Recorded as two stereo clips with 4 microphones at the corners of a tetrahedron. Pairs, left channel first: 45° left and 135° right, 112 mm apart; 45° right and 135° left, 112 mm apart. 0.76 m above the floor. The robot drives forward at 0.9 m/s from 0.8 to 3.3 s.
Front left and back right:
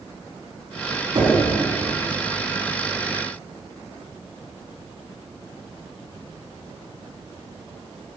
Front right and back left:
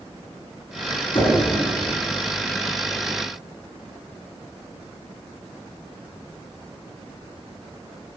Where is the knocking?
85° right, 6.5 m; by 1.4 s 90° right, 6.5 m.